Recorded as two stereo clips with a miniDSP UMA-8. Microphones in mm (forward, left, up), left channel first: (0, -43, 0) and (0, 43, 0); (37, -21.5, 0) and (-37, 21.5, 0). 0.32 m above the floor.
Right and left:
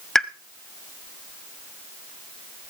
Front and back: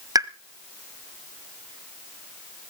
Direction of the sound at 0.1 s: 175° right.